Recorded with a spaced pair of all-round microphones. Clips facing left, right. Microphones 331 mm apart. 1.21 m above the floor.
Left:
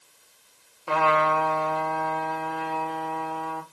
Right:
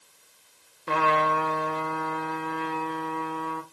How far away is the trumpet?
About 0.6 m.